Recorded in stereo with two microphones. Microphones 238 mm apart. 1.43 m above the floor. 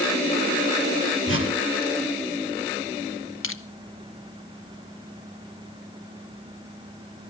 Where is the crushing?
65° left (ahead or behind), 1.0 m.